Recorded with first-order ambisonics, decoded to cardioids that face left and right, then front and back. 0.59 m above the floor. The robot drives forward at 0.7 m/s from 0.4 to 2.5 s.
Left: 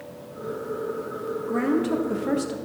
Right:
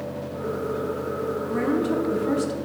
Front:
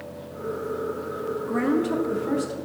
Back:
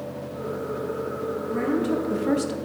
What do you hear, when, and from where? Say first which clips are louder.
1.5 s a woman speaking: left 2 dB, front 1 dB; 30° left, 0.6 m; by 2.5 s 160° left, 0.7 m